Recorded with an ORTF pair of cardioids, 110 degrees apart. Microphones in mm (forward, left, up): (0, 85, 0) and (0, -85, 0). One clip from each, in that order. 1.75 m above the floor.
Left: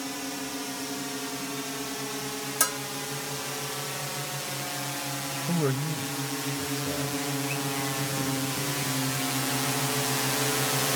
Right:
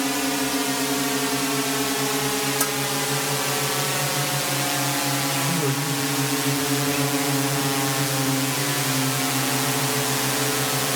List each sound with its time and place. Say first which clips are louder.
0.0 s a drone: right 11 dB; 65° right; by 11.0 s 25° right
2.6 s a bell: right 4 dB; 10° left
5.5 s a man speaking: right 5 dB; 5° left